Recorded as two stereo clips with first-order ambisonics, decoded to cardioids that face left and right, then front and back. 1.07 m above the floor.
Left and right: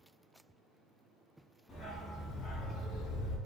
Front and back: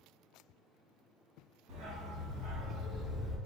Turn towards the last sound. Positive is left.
turn(degrees=100)